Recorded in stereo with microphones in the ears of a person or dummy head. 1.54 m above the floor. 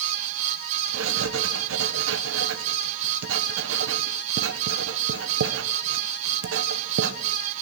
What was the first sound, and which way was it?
Writing, 75° right (ahead or behind).